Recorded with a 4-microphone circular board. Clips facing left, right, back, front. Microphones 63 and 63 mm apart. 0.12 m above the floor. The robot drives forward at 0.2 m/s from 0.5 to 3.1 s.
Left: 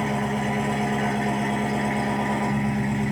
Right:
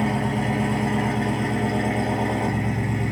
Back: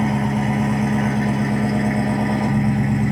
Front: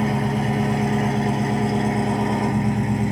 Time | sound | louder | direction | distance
0.0 | an engine running | right 1 dB, back 2 dB | 160° left | 0.7 m